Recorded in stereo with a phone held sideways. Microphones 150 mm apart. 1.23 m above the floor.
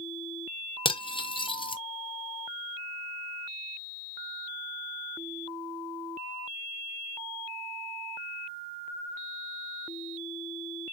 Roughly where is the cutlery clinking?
Left.